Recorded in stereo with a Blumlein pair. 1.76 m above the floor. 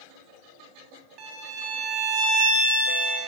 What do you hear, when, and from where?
1.2 s a violin: 35° right, 1.2 m